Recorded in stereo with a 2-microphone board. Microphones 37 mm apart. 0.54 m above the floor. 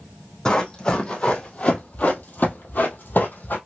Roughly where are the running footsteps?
Left.